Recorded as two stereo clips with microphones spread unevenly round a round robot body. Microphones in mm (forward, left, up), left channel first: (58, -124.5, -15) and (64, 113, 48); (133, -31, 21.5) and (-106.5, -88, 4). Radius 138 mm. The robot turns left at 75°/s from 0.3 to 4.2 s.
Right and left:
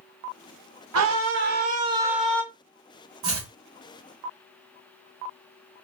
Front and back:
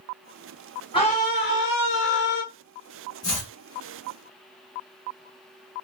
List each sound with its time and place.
0.9 s a scream: 85° left, 1.2 m; by 2.4 s 30° right, 1.2 m
3.2 s chopping: 90° left, 2.0 m; by 3.5 s 70° left, 2.0 m